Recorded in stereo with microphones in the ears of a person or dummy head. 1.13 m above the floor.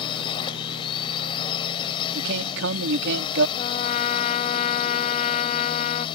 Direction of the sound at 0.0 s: 30° left (ahead or behind).